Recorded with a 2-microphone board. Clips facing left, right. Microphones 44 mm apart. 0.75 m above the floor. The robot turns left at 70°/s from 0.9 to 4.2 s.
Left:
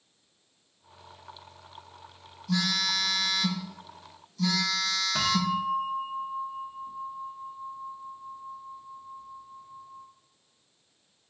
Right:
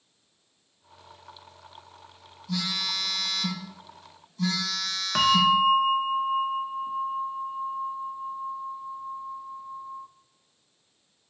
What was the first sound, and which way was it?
A phone buzzing, 90° left.